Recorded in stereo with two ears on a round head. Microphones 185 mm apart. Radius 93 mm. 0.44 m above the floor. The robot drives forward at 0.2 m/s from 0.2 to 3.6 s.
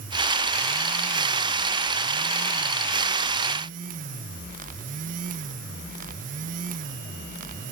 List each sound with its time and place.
Only background noise.